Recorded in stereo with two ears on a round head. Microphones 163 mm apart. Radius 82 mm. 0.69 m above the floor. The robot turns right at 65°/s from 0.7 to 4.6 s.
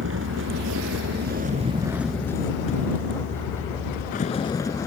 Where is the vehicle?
95° right; by 4.9 s 160° left.